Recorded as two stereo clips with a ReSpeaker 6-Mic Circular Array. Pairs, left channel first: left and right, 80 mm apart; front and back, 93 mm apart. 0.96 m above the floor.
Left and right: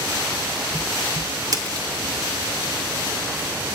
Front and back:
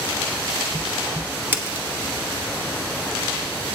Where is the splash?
120° right, 0.8 m.